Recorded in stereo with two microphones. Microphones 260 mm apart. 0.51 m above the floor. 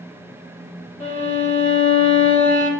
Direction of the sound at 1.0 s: 25° left (ahead or behind).